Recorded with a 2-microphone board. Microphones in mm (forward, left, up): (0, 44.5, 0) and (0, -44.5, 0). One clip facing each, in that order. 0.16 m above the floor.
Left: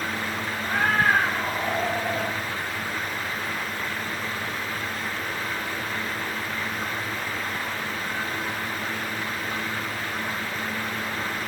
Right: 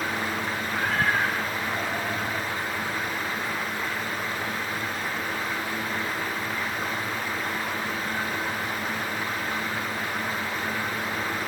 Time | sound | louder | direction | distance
0.6 | a cat meowing | left 5 dB | 85° left | 4 m